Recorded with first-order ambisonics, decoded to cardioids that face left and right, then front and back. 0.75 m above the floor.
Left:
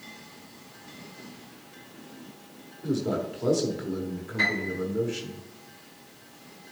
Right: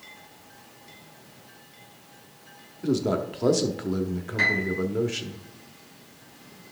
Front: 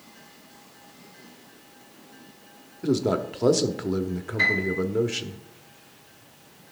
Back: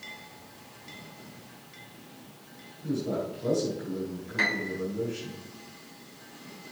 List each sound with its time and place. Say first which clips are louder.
2.8 s a man speaking: right 3 dB, front 7 dB; 25° right, 1.2 m
4.4 s a piano: right 3 dB, front 5 dB; 155° right, 4 m